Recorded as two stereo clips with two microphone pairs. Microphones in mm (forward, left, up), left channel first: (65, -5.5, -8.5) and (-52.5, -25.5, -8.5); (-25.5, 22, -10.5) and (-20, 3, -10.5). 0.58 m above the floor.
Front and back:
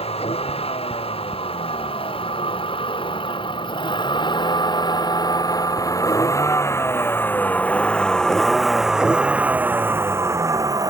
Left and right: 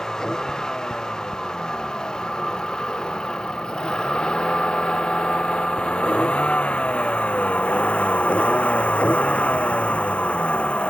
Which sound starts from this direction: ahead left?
A vehicle, at 0.0 s.